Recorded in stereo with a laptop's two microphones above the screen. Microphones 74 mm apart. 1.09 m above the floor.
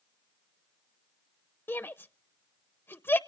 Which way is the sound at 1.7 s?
30° left (ahead or behind).